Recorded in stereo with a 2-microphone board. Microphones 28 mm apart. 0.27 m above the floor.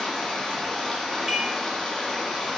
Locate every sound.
0.0 s running water: 20° left (ahead or behind), 1.2 m
1.3 s dishes clattering: 5° right (ahead or behind), 0.9 m